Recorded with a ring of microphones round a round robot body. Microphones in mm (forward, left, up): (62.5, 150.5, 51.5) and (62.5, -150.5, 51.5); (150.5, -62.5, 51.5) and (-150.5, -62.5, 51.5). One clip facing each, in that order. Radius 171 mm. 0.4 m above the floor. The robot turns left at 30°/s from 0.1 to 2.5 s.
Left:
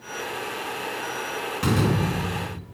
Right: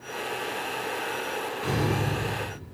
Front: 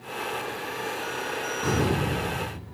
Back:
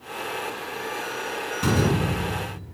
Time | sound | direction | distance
1.6 | a door slam | 125° left | 3 m